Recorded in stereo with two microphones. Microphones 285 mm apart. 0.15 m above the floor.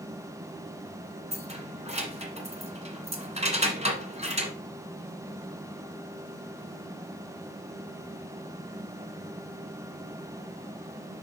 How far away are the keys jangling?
About 1.1 m.